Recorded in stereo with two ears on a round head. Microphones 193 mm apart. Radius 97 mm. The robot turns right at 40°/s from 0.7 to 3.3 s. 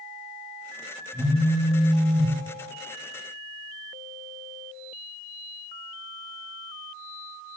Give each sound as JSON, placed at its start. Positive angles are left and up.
{"t": 1.1, "sound": "a phone buzzing", "azimuth_deg": 180, "distance_m": 7.0}